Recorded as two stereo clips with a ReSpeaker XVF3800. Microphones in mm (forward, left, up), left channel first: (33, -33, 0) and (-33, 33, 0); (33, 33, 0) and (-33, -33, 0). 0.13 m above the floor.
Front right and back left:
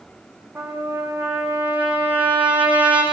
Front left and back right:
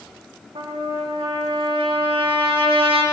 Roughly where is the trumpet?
Behind right.